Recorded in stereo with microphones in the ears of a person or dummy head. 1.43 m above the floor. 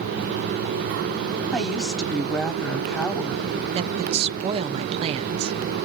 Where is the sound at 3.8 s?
35° right (ahead or behind), 0.7 m.